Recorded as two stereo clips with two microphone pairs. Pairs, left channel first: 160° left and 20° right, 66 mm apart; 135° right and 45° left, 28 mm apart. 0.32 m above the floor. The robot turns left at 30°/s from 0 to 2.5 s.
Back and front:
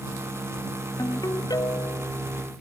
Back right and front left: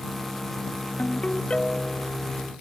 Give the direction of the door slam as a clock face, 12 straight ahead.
I don't hear a door slam.